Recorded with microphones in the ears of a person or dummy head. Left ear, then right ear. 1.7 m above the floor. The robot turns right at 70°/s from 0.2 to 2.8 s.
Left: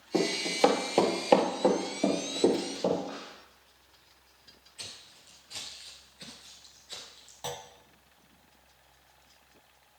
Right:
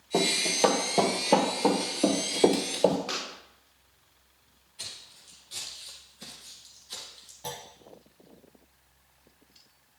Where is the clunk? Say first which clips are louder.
Left 1 dB; 30° left (ahead or behind), 0.7 m.